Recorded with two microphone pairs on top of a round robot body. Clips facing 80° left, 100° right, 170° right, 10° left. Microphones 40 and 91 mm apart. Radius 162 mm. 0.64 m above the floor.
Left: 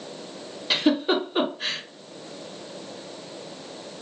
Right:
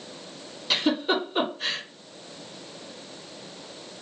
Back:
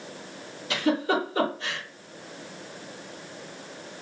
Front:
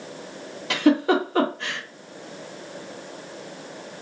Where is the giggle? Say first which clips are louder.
Left 2 dB, front 6 dB; straight ahead, 1.6 m.